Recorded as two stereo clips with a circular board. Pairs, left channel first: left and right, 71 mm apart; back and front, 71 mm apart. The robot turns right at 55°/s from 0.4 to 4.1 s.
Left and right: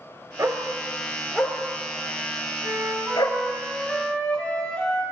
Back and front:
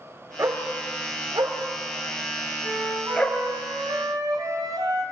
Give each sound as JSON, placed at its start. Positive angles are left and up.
{"t": 0.4, "sound": "a dog barking", "azimuth_deg": -50, "distance_m": 3.5}
{"t": 2.6, "sound": "a flute", "azimuth_deg": -70, "distance_m": 4.0}